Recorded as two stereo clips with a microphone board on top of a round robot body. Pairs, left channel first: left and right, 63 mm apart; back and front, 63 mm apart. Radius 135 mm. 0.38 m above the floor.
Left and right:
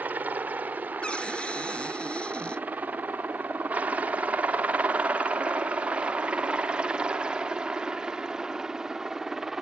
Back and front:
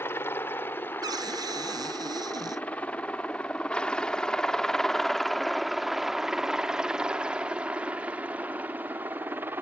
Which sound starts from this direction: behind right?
A helicopter, at 0.0 s.